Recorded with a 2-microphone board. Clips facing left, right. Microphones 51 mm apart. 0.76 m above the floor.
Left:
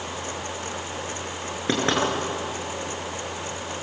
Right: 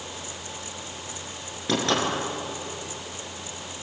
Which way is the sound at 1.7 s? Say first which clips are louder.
Left 1 dB; 30° left (ahead or behind).